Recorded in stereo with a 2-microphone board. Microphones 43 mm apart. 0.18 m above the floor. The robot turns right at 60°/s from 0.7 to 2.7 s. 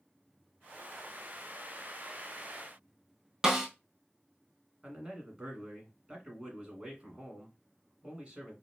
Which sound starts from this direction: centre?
A snare drum, at 3.4 s.